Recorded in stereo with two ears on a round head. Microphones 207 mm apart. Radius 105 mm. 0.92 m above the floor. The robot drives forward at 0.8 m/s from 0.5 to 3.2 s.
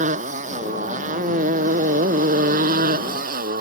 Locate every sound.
0.0 s a motorcycle: 30° right (ahead or behind); by 3.6 s 35° right (ahead or behind)